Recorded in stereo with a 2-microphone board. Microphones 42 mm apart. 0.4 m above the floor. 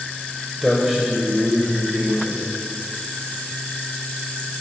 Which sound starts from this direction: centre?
A man speaking, at 0.6 s.